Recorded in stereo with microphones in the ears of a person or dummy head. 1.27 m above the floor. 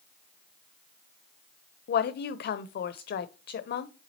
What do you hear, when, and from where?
1.9 s a woman speaking: 55° left (ahead or behind), 0.8 m